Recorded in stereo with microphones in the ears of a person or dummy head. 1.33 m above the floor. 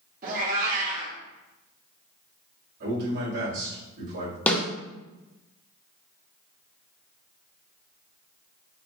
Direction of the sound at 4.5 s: 10° left (ahead or behind).